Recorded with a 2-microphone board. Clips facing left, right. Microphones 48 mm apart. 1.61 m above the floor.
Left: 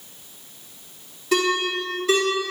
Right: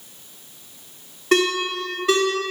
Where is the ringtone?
50° right (ahead or behind), 2.0 m.